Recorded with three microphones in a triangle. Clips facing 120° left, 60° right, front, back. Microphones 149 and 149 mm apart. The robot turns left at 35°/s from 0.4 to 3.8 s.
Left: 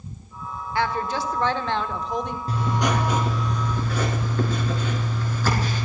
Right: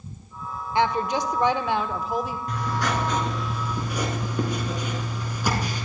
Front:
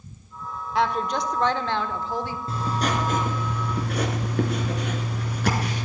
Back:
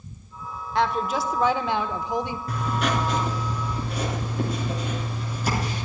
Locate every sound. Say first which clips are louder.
0.8 s a woman speaking: right 2 dB, even; 85° right, 0.8 m; by 2.4 s 145° right, 0.8 m
2.5 s writing: left 5 dB, front 1 dB; 60° left, 3 m; by 5.8 s 15° left, 3 m